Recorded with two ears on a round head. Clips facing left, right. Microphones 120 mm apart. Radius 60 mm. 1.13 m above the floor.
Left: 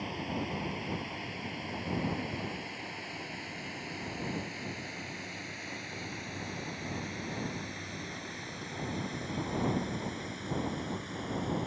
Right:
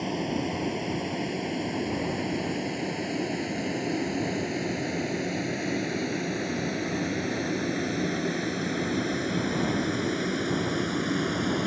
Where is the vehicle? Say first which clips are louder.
Right 8 dB; 55° right (ahead or behind); by 11.7 s 80° right.